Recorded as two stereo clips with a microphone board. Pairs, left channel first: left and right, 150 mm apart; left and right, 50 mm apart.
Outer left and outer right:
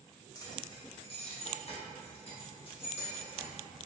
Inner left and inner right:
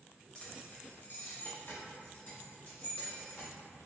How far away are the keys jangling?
About 0.6 m.